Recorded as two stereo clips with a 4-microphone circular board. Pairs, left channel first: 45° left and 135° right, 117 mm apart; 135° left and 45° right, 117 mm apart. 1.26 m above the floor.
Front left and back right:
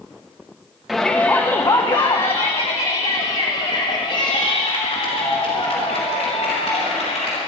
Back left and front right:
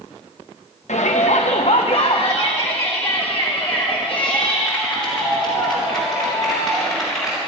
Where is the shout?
135° left, 1.0 m; by 7.4 s 45° left, 4.5 m.